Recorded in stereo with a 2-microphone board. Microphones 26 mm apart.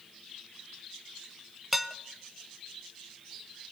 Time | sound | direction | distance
1.7 | dishes clattering | 5° right (ahead or behind) | 0.7 m